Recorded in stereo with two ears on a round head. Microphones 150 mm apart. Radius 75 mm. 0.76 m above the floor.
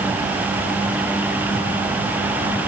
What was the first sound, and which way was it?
Only background noise.